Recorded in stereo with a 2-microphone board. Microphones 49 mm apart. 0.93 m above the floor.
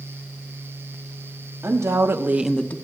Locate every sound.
1.6 s a woman speaking: 75° right (ahead or behind), 1.4 m; by 2.8 s 35° left (ahead or behind), 0.6 m